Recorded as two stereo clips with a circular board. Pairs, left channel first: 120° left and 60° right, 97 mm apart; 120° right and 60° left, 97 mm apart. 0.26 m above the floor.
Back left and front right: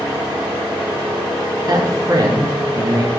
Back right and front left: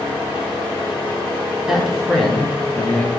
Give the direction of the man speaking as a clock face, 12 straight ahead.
1 o'clock.